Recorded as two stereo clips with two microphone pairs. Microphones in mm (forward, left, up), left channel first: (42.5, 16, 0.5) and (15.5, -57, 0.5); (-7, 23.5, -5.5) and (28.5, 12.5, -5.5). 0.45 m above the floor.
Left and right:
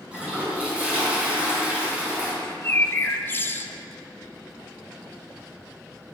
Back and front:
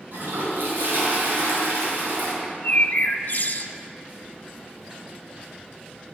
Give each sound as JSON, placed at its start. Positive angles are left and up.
{"t": 0.1, "sound": "a toilet flushing", "azimuth_deg": -35, "distance_m": 4.0}
{"t": 2.4, "sound": "a bird", "azimuth_deg": 125, "distance_m": 0.6}